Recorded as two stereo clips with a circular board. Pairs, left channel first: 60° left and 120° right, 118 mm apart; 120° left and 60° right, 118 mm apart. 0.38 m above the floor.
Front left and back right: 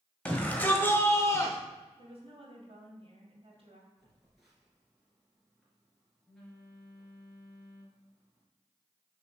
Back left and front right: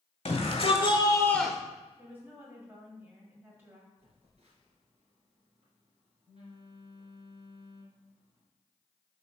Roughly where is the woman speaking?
Behind right.